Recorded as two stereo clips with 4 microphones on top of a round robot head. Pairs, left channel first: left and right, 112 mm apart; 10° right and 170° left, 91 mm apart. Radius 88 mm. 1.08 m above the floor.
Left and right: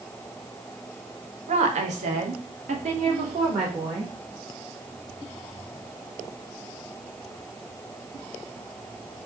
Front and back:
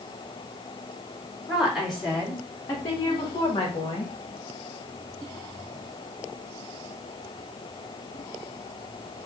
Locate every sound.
1.5 s a woman speaking: 105° right, 1.4 m; by 4.1 s 45° right, 1.6 m